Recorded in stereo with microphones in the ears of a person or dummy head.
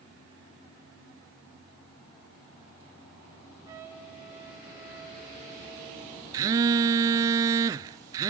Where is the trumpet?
5° right (ahead or behind), 2.5 m.